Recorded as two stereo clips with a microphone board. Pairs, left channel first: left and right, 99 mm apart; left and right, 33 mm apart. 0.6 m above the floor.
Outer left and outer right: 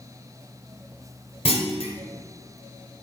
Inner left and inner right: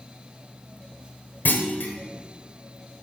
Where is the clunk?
75° left (ahead or behind), 1.4 m.